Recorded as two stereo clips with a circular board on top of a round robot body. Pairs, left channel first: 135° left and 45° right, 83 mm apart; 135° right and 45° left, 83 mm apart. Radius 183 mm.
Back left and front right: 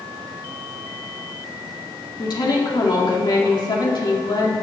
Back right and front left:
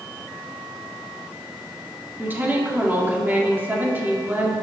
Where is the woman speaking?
110° left, 1.9 m.